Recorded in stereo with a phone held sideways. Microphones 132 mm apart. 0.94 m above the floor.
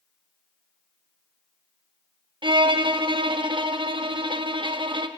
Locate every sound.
2.4 s a violin: 40° right (ahead or behind), 0.8 m